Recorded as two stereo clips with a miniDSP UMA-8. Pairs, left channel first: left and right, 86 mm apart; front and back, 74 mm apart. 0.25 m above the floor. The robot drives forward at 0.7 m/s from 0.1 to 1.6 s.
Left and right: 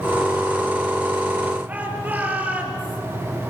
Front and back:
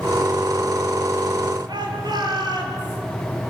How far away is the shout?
About 5.5 m.